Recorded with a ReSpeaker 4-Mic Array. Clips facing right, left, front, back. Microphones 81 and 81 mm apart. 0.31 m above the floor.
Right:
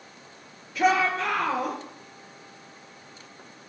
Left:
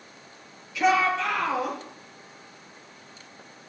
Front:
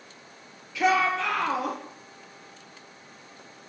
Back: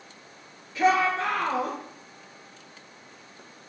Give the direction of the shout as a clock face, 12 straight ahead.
4 o'clock.